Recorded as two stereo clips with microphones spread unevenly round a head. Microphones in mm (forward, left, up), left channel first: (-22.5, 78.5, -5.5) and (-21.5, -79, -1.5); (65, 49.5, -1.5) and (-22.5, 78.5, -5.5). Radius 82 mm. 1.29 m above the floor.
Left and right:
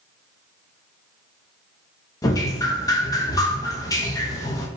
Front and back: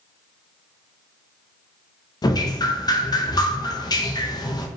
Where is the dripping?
20° left, 0.7 m.